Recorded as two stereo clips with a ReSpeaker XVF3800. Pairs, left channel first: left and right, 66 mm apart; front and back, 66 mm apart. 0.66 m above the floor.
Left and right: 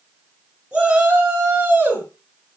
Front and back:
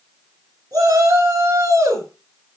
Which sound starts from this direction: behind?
A shout, at 0.7 s.